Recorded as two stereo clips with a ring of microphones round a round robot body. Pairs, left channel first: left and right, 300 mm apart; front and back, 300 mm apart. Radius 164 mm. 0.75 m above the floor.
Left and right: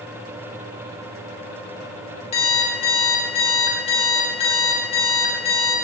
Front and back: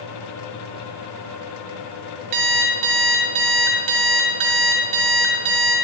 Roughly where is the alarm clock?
Behind.